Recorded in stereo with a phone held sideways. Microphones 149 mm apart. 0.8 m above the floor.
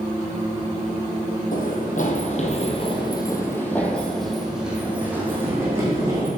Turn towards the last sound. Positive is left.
turn(degrees=-20)  # may be behind; listen again after turning